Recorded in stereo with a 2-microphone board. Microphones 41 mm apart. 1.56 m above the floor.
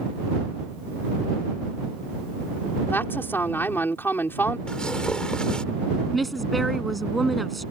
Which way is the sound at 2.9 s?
70° left (ahead or behind).